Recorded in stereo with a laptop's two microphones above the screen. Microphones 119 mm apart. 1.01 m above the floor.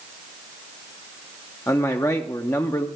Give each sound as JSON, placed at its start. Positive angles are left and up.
{"t": 1.7, "sound": "a man speaking", "side_deg": 25, "distance_m": 0.6}